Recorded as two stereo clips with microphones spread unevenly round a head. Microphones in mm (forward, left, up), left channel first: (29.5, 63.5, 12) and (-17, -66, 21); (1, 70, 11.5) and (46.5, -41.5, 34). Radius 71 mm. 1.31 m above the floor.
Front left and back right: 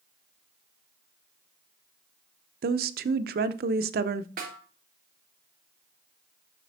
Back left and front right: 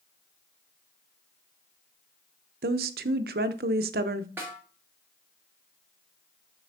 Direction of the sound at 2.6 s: 85° right.